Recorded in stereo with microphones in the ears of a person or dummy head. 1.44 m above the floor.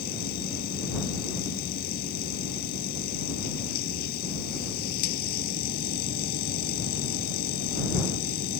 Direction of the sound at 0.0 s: 50° left (ahead or behind).